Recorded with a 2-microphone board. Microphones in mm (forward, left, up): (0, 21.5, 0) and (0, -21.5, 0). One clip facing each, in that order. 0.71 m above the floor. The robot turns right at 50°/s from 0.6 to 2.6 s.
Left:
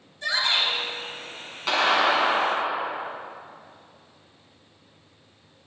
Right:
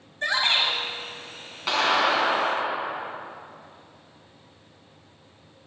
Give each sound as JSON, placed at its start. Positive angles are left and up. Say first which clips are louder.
{"t": 0.2, "sound": "a shout", "louder": "right 1 dB", "side_deg": -50, "distance_m": 5.0}
{"t": 1.7, "sound": "a clap", "louder": "left 1 dB", "azimuth_deg": 0, "distance_m": 5.0}